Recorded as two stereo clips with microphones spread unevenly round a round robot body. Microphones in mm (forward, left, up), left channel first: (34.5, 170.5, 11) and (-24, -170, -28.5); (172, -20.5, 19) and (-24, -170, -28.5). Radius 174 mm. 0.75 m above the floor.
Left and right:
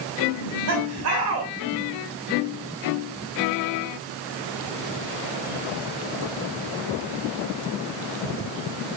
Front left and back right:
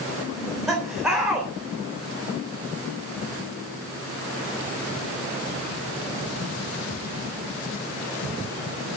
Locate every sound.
0.3 s laughter: 55° right, 3.5 m